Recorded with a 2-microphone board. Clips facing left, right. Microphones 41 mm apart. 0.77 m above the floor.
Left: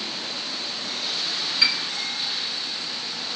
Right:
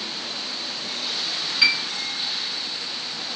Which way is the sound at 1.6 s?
10° right (ahead or behind).